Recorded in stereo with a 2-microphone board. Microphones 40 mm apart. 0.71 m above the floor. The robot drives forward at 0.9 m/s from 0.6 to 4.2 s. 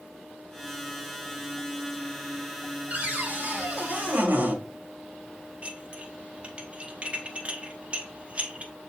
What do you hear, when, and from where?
2.9 s a cupboard door: 35° right (ahead or behind), 1.9 m; by 4.6 s 45° right (ahead or behind), 1.5 m
5.6 s dishes clattering: 30° right (ahead or behind), 0.9 m